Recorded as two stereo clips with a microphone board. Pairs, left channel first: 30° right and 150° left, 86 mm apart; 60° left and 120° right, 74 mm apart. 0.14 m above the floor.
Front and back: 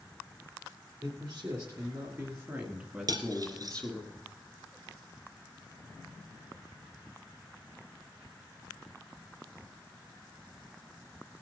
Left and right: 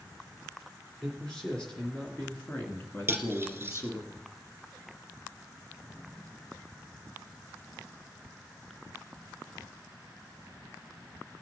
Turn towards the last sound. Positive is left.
turn(degrees=180)